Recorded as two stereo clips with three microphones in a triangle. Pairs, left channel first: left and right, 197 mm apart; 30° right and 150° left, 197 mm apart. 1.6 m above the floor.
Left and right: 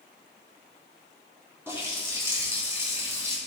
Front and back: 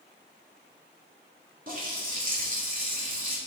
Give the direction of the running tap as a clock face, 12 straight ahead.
6 o'clock.